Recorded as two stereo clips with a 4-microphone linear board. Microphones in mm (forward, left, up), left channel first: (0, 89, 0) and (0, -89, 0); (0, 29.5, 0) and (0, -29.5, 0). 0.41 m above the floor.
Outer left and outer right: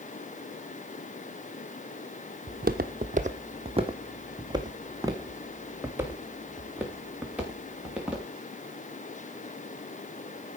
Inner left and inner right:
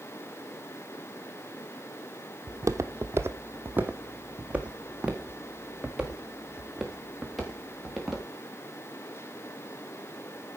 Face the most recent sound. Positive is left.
turn(degrees=-5)  # may be behind; listen again after turning